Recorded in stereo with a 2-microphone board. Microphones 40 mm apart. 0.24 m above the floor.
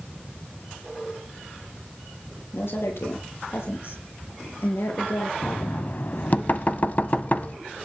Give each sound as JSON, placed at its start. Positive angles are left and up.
{"t": 2.5, "sound": "a woman speaking", "side_deg": 75, "distance_m": 7.0}
{"t": 5.4, "sound": "knocking", "side_deg": 45, "distance_m": 0.9}